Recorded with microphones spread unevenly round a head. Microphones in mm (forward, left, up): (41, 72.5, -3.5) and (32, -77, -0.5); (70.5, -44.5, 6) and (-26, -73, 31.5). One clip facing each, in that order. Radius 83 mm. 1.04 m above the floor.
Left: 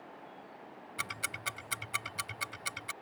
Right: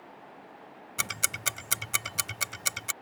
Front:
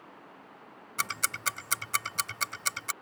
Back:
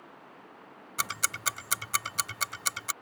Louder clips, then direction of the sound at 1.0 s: Right 5 dB, even; 70° right.